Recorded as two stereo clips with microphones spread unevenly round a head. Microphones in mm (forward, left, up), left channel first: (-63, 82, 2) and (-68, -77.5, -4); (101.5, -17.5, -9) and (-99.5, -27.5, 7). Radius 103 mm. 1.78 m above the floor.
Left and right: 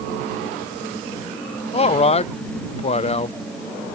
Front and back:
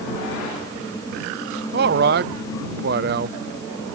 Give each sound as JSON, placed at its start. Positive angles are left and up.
{"t": 1.7, "sound": "a man speaking", "azimuth_deg": 140}